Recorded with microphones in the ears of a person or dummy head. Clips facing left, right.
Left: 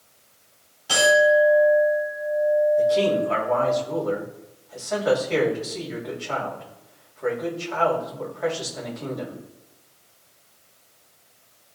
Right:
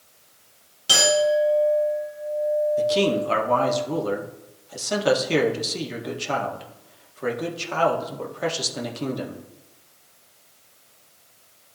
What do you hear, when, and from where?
0.9 s a clink: 55° right (ahead or behind), 3.5 m
2.8 s a man speaking: 50° right (ahead or behind), 1.7 m